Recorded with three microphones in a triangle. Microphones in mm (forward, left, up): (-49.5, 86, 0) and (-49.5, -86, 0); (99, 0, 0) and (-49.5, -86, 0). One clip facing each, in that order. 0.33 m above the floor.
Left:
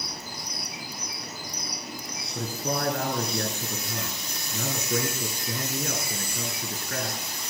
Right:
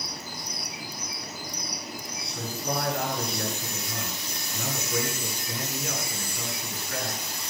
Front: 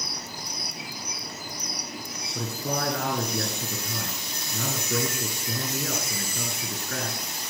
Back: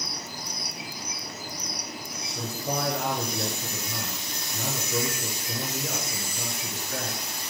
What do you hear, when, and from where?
2.4 s a man speaking: 50° left, 5.5 m